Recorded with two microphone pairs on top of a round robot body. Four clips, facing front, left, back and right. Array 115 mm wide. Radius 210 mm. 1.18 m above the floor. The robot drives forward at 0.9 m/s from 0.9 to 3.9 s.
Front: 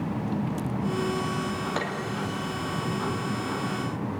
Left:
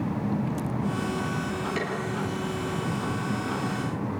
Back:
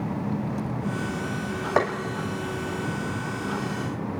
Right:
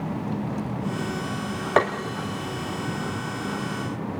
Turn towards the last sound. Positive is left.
turn(degrees=-165)